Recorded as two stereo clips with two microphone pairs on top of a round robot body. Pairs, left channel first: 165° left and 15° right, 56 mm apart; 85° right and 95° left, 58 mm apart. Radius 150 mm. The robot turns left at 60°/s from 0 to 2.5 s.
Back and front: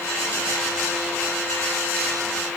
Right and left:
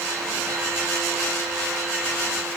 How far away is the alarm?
No alarm in this recording.